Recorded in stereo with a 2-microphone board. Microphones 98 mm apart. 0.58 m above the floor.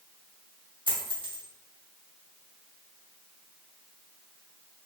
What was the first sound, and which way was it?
A dropped coin, 55° right (ahead or behind).